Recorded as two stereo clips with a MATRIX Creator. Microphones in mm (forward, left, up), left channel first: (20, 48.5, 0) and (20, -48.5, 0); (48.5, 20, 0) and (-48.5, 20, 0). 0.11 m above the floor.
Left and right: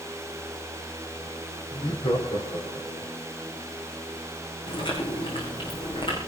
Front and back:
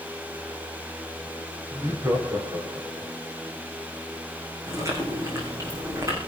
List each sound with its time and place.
1.7 s laughter: 120° left, 4.5 m
4.7 s chewing: 120° left, 6.5 m